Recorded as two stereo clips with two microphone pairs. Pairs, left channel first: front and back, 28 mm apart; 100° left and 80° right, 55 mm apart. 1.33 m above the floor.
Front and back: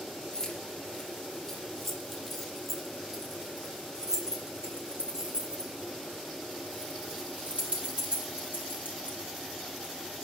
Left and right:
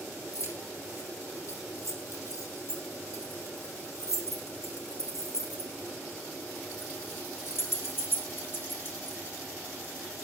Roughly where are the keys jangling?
Left.